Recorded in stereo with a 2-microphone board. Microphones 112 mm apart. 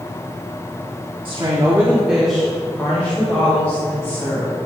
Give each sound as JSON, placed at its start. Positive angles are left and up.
{"t": 1.2, "sound": "a woman speaking", "side_deg": -50, "distance_m": 1.4}